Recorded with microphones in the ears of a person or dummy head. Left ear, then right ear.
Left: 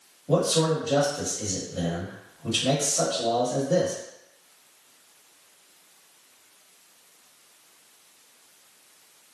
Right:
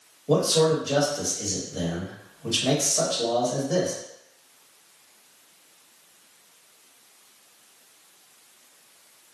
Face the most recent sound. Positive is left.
turn(degrees=-80)